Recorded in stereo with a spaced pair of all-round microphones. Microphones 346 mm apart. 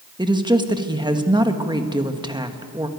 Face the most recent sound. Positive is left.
turn(degrees=-10)  # may be behind; listen again after turning